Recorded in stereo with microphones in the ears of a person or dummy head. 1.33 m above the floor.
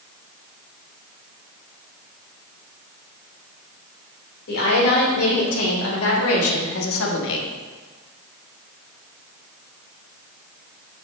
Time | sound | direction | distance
4.5 | a woman speaking | 70° left (ahead or behind) | 3 m